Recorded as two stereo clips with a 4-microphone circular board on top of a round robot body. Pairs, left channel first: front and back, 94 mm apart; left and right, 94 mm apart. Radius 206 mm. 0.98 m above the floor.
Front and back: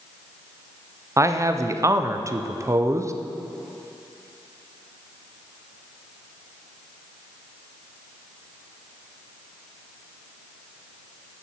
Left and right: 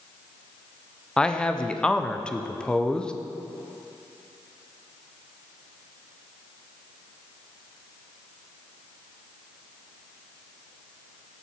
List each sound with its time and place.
1.2 s a man speaking: 165° left, 0.8 m